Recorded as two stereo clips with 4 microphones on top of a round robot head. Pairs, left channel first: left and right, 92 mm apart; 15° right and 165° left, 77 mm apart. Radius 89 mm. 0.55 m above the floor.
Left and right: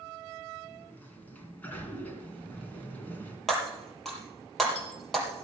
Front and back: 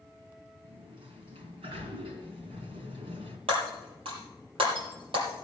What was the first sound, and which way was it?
A sliding door, 165° left.